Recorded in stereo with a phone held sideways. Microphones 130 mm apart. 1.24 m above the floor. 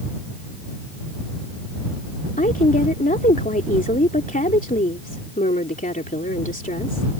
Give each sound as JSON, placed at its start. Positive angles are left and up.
{"t": 2.4, "sound": "a woman speaking", "side_deg": 75}